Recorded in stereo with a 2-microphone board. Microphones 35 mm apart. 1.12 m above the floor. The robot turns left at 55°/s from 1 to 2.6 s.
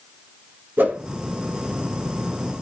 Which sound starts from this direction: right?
A whoosh, at 0.8 s.